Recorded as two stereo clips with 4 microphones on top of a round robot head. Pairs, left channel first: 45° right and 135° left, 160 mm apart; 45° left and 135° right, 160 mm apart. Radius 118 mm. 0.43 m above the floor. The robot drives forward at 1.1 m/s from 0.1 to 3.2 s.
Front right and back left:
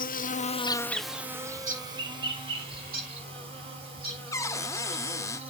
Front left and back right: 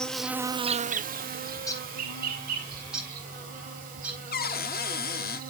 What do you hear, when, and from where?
0.0 s an insect: 40° right, 0.9 m; by 5.5 s 170° right, 3 m
1.5 s a bird: 105° left, 2 m; by 4.2 s 145° left, 3 m
4.3 s a cupboard door: 25° left, 0.6 m